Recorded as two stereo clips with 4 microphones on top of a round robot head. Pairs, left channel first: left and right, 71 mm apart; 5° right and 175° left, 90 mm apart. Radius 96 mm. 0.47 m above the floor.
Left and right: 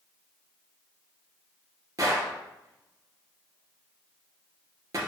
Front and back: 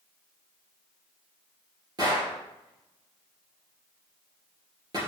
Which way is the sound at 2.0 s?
130° right.